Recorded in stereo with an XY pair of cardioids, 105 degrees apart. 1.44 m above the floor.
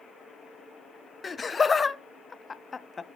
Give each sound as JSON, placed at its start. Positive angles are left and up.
{"t": 1.2, "sound": "laughter", "azimuth_deg": 25, "distance_m": 0.6}